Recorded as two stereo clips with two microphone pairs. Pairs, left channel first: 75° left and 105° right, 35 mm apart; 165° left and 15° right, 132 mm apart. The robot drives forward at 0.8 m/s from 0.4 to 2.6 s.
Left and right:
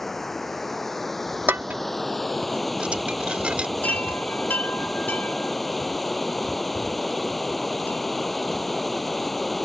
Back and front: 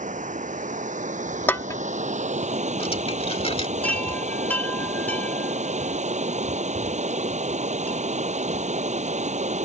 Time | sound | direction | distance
0.0 | running water | 5° right | ?
1.5 | dishes clattering | 120° right | ?
3.8 | a chime | 85° left | ?